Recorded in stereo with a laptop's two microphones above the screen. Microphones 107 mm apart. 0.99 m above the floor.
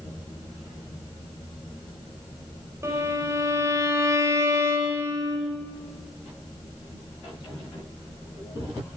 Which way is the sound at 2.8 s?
25° right (ahead or behind).